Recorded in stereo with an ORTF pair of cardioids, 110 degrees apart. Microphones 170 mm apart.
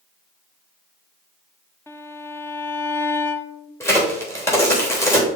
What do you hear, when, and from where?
1.9 s a violin: 15° left, 0.6 m
3.8 s a crack: 15° left, 3 m